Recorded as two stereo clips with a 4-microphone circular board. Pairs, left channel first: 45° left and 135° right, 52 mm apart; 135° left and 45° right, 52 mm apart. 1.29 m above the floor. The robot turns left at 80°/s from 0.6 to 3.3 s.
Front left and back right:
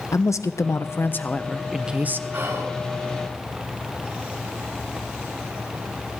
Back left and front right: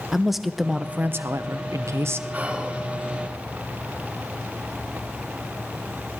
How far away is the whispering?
About 3 m.